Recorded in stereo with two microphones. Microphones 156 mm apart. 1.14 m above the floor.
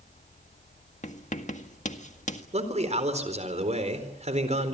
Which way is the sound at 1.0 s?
50° left (ahead or behind).